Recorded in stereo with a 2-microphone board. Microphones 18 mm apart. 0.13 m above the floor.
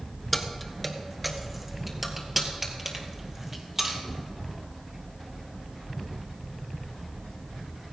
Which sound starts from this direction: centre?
Keys jangling, at 0.3 s.